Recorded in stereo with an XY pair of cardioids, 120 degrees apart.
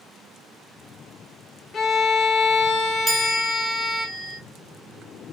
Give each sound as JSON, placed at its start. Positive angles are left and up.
{"t": 1.7, "sound": "a violin", "azimuth_deg": 40, "distance_m": 0.6}
{"t": 3.1, "sound": "a chime", "azimuth_deg": -25, "distance_m": 0.8}